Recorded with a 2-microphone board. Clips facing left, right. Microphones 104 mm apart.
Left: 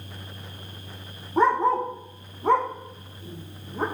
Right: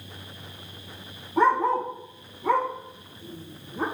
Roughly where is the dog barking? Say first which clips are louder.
Left 1 dB; left.